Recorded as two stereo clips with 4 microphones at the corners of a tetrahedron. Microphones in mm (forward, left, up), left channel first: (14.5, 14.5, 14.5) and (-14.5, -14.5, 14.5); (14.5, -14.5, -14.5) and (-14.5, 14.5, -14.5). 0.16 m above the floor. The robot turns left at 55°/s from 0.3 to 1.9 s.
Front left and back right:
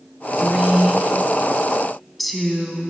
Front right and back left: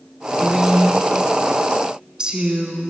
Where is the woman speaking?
145° right, 1.2 m; by 2.9 s 135° left, 1.2 m.